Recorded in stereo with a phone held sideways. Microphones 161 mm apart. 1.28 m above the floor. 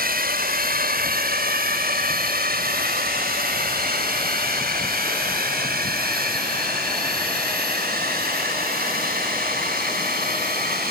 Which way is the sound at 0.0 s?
75° right (ahead or behind).